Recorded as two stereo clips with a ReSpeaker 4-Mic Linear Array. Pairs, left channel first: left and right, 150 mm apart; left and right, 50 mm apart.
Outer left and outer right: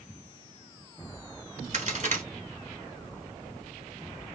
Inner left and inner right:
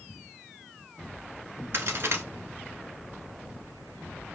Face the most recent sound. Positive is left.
turn(degrees=-55)  # may be behind; listen again after turning